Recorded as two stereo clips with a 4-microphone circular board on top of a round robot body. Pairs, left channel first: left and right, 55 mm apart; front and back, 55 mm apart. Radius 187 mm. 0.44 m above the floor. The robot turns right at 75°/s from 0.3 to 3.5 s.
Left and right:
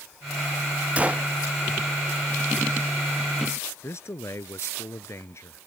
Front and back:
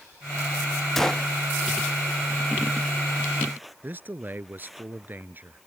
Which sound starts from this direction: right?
A gunshot, at 1.0 s.